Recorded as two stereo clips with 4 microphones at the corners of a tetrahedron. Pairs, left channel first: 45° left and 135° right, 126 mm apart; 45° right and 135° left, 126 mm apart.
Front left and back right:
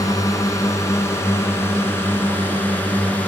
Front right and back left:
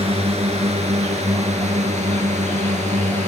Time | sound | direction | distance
0.0 | a drone | 105° left | ?